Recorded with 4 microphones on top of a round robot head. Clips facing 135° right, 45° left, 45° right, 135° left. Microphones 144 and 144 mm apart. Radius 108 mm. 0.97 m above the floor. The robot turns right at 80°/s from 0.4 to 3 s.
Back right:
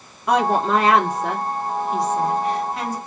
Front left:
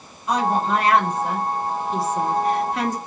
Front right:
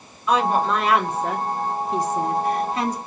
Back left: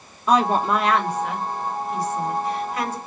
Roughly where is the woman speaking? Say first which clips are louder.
Back right 3 dB, back left 1 dB; behind.